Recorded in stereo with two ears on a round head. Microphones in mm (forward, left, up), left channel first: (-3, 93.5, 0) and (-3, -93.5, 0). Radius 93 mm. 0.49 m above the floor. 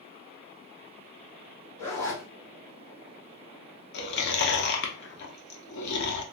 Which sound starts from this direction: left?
Chewing, at 3.9 s.